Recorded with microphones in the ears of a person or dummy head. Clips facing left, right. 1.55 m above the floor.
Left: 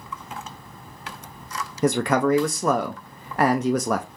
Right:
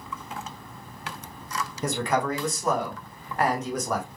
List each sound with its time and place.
1.8 s a man speaking: 50° left (ahead or behind), 0.6 m